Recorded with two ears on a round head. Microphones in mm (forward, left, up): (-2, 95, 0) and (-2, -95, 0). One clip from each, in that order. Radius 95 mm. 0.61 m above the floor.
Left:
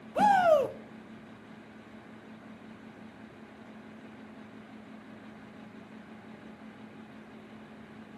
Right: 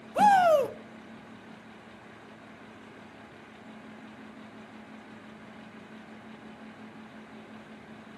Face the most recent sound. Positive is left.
turn(degrees=-20)  # may be behind; listen again after turning